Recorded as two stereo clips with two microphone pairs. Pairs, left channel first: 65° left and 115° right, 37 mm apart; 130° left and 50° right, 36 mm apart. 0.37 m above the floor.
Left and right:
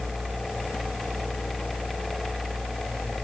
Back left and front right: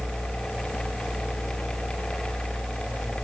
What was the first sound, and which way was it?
Only background noise.